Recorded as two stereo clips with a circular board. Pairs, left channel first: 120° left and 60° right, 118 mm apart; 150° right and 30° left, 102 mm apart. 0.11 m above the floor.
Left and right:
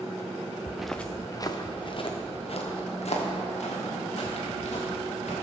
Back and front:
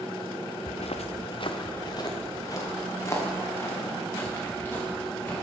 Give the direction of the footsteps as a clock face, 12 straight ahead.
5 o'clock.